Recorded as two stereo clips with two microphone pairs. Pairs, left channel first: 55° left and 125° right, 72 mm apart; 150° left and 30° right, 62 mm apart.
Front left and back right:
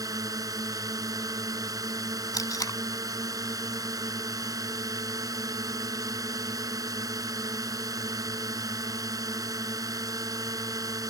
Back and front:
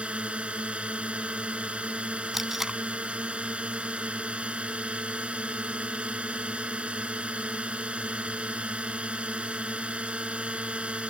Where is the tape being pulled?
55° left.